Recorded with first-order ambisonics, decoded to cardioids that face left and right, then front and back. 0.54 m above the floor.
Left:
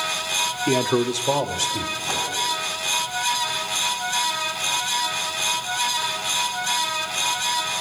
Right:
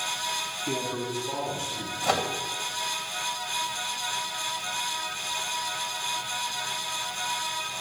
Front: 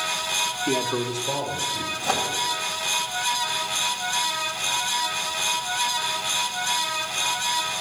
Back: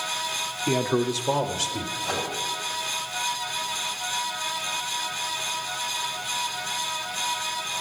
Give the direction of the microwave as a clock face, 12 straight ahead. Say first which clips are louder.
Right 3 dB, front 5 dB; 2 o'clock.